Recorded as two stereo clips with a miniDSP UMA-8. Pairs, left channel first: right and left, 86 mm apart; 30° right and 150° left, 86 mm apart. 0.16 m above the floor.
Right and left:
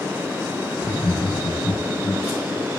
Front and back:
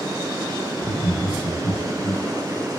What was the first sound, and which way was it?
Laughter, 50° right.